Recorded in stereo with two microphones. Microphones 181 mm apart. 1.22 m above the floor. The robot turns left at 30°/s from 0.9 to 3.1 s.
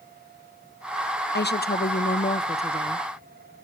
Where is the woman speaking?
75° left, 0.5 m; by 3.1 s 25° left, 0.5 m.